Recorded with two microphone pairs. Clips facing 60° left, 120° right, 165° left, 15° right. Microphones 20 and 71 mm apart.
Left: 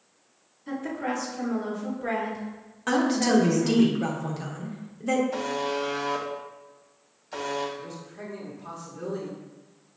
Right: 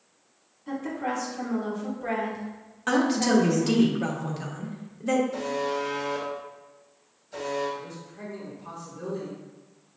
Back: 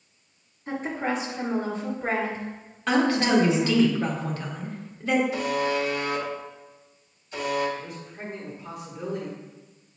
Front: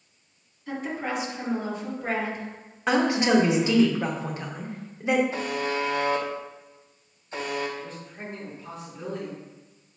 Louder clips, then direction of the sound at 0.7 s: Even, back 2 dB; 145° left.